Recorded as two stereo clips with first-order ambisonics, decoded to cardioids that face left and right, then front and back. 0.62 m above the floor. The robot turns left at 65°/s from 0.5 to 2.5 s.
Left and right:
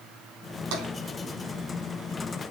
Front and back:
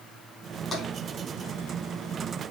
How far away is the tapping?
About 4 m.